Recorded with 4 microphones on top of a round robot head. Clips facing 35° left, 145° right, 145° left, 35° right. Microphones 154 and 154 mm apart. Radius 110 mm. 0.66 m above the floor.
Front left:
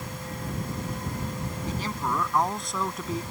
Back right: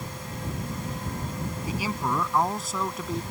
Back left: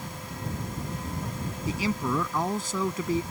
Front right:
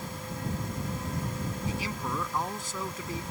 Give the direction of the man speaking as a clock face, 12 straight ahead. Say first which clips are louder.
Back right 2 dB, back left 9 dB; 8 o'clock.